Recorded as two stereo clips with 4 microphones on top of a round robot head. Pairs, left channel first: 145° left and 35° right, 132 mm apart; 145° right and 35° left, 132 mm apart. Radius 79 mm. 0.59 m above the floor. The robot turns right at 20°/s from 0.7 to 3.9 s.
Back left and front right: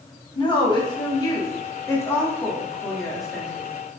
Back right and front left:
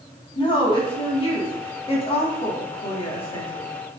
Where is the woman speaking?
175° right, 1.1 m; by 3.7 s 120° right, 1.1 m.